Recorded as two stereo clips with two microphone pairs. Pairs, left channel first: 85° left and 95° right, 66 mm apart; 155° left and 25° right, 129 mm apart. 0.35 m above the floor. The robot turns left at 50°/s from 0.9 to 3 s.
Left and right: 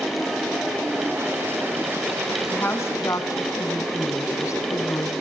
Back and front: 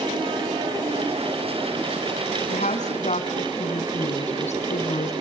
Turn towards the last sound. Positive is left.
turn(degrees=125)